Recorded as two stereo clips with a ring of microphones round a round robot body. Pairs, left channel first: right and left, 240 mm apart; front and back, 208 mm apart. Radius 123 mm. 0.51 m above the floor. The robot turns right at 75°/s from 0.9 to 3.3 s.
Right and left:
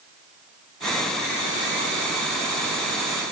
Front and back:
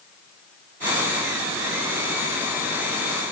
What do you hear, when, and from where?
Only background noise.